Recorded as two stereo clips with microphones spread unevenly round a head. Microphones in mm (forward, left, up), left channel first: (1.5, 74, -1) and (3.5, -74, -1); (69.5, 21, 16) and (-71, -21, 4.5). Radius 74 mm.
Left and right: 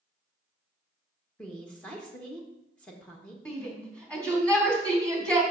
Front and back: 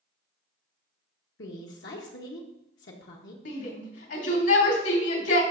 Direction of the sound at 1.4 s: 10° left.